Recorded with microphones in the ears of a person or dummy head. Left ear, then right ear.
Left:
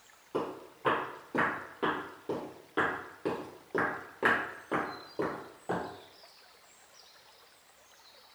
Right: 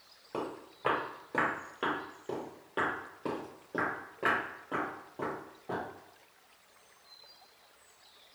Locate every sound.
0.3 s footsteps: 25° right (ahead or behind), 2.0 m; by 5.8 s 35° left (ahead or behind), 1.9 m